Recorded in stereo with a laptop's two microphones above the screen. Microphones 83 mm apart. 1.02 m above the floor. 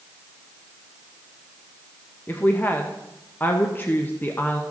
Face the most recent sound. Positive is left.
turn(degrees=25)  # may be behind; listen again after turning